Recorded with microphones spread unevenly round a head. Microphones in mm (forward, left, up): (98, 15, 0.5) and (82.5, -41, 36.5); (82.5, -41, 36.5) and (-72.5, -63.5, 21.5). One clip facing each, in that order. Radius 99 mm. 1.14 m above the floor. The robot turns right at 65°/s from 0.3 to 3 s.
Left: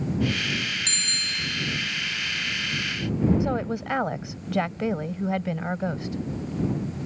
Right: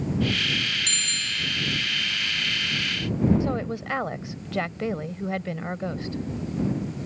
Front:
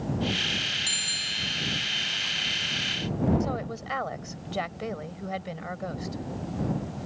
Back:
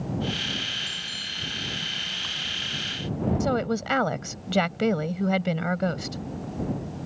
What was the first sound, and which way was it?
A bicycle bell, 30° left.